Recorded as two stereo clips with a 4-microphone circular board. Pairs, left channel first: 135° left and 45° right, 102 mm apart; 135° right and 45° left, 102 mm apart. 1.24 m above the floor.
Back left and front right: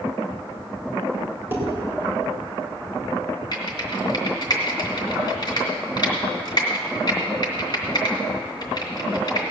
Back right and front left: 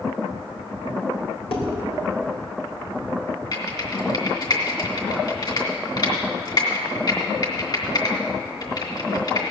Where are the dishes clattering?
115° right, 3.5 m.